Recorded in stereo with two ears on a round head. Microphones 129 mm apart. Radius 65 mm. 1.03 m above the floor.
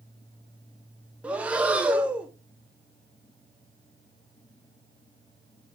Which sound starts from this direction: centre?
Breathing, at 1.2 s.